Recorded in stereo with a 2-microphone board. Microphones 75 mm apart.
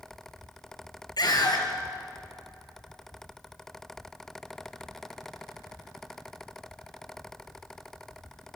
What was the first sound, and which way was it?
A scream, 65° left (ahead or behind).